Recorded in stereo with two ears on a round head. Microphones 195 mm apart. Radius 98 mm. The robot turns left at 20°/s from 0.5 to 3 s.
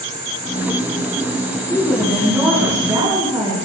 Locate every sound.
1.7 s a woman speaking: 10° left (ahead or behind), 5.5 m; by 3.6 s 15° right (ahead or behind), 5.5 m